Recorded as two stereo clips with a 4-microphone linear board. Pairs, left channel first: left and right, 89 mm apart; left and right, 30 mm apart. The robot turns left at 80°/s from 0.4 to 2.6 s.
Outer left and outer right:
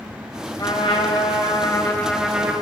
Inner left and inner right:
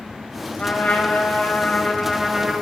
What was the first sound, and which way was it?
A trumpet, 135° left.